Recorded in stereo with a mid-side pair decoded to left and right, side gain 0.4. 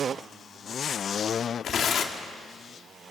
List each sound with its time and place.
1.6 s tearing paper: 65° left, 1.8 m